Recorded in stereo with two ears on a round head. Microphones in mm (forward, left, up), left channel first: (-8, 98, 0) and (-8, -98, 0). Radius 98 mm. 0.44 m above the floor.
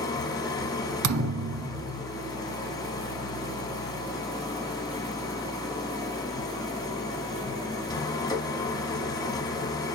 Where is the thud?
75° right (ahead or behind), 0.8 m.